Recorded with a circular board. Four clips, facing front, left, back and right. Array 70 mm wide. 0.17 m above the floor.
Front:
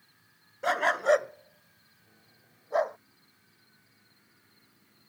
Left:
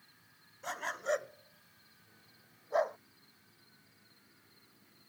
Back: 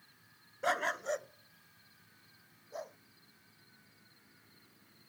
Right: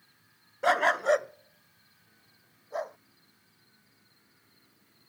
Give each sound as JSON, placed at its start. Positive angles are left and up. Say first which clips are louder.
{"t": 0.6, "sound": "a dog barking", "louder": "right 13 dB, front 9 dB", "azimuth_deg": -85}